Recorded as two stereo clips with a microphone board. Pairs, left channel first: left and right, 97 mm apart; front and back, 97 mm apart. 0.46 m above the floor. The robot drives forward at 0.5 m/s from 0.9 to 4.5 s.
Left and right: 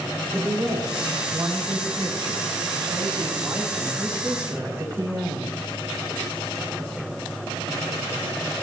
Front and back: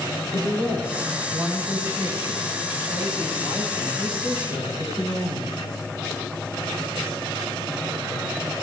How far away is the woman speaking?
About 4.5 m.